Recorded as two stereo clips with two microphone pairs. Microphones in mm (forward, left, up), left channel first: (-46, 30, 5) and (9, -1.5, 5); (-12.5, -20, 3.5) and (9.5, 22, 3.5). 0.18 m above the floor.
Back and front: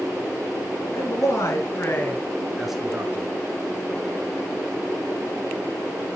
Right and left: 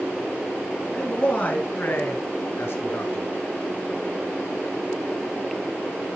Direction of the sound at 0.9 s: Straight behind.